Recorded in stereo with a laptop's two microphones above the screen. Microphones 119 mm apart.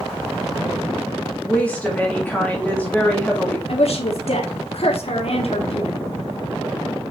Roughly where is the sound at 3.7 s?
Left.